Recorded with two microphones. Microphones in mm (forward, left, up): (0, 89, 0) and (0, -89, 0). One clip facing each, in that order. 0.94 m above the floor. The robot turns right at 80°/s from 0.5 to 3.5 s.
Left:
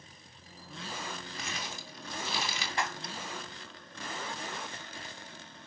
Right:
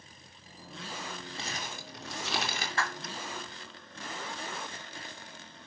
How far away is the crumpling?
About 3 m.